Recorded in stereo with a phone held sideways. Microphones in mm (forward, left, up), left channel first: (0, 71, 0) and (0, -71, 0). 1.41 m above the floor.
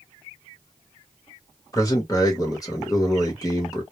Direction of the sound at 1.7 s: 25° left (ahead or behind).